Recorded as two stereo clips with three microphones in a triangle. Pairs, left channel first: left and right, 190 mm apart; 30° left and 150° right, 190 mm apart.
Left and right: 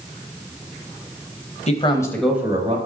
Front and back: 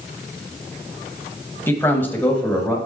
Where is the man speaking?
100° left, 1.1 m; by 2.8 s 55° right, 1.1 m.